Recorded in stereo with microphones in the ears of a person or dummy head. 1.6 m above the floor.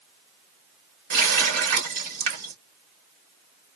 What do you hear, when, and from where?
1.1 s a running tap: 45° right (ahead or behind), 1.5 m